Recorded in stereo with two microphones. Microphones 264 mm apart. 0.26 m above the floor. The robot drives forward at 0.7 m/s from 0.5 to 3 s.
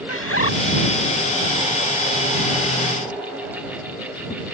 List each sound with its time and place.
0.1 s a bird: 50° left (ahead or behind)